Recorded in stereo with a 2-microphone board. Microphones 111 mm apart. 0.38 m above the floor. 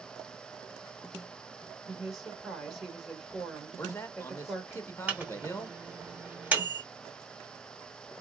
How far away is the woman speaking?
About 1.6 m.